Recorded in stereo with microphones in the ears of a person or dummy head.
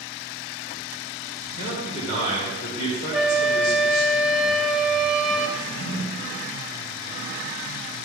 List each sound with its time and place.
1.6 s a man speaking: 40° left (ahead or behind), 1.5 m
3.1 s a flute: centre (ahead or behind), 0.5 m
5.6 s a drawer: 55° left (ahead or behind), 1.2 m